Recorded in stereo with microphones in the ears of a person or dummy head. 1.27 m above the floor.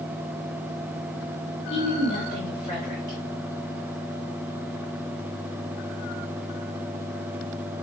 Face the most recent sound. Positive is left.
turn(degrees=35)  # may be behind; listen again after turning